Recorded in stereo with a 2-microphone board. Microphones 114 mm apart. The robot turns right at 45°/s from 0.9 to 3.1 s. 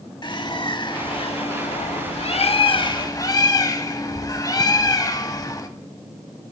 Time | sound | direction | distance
0.2 | a bird | 45° left | 0.5 m